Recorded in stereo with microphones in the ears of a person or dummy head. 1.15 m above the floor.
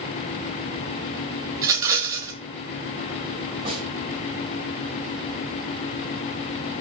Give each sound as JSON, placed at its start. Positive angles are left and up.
{"t": 1.6, "sound": "a rattle", "side_deg": -20, "distance_m": 1.6}
{"t": 3.6, "sound": "a snare drum", "side_deg": -40, "distance_m": 5.5}